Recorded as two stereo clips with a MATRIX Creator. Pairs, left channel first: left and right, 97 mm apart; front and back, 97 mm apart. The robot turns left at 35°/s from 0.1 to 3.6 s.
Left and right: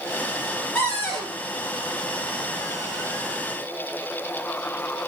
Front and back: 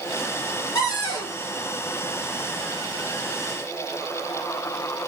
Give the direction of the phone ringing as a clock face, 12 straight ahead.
No phone ringing in this recording.